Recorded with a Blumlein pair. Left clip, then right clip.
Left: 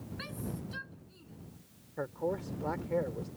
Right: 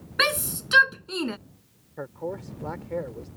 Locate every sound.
0.2 s a shout: 50° right; by 1.4 s 45° right
2.0 s a man speaking: 5° right